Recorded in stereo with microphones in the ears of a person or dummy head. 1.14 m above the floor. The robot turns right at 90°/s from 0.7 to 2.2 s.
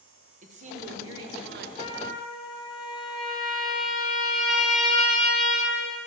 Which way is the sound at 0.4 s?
140° right.